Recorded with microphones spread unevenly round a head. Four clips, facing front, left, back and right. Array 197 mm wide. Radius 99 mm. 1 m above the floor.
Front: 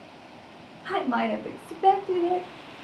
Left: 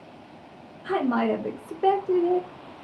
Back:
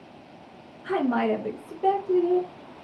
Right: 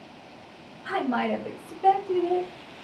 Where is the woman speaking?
120° left, 1.0 m; by 2.5 s 35° left, 1.0 m.